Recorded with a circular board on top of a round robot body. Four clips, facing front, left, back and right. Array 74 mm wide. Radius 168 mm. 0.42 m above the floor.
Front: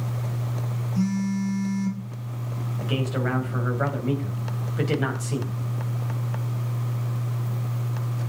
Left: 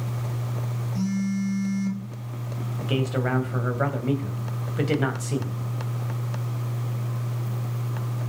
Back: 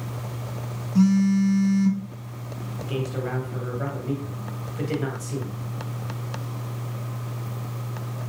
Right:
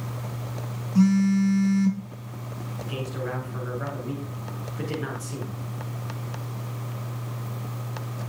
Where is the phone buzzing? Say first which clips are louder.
Right 7 dB, back 7 dB; 140° right, 4.5 m.